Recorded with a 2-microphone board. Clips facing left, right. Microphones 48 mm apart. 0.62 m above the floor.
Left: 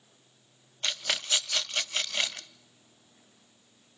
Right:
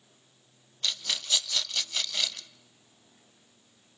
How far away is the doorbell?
I don't hear a doorbell.